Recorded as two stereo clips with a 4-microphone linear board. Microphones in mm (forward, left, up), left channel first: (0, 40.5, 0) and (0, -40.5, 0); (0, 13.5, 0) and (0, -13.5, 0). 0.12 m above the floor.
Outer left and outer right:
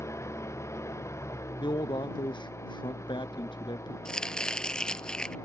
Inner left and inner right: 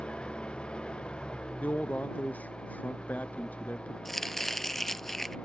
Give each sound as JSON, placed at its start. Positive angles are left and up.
{"t": 0.0, "sound": "an engine running", "side_deg": 35}
{"t": 1.6, "sound": "a man speaking", "side_deg": 75}
{"t": 4.0, "sound": "chopping", "side_deg": 10}